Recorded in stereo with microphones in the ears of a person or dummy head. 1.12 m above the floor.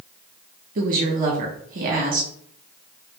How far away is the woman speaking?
About 1.0 m.